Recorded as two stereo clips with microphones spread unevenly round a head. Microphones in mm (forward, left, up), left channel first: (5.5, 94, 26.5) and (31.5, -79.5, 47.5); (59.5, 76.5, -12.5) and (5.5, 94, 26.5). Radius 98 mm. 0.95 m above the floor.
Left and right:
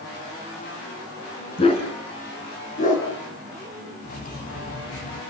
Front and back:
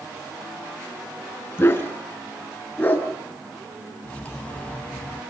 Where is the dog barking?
35° left, 4.5 m; by 3.1 s 50° left, 5.5 m.